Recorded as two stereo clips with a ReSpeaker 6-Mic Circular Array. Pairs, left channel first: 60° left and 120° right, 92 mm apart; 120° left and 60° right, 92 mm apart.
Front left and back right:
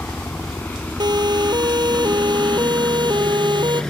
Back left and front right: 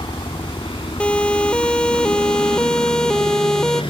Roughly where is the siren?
Behind.